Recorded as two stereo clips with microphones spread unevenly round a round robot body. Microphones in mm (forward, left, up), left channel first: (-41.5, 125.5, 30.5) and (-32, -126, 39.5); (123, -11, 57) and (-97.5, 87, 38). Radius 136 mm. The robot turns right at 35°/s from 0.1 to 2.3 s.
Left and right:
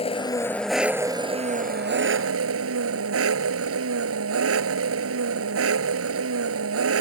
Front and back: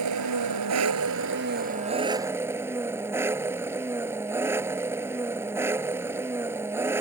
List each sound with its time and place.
0.0 s an engine running: 160° left; by 7.0 s 120° right